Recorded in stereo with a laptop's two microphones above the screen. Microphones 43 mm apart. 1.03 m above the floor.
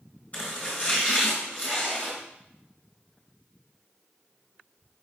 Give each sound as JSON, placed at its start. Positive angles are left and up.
{"t": 0.3, "sound": "chopping", "side_deg": 35, "distance_m": 4.5}